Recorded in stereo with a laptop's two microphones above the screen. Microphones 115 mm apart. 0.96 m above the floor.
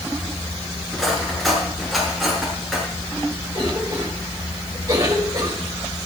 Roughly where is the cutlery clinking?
Centre.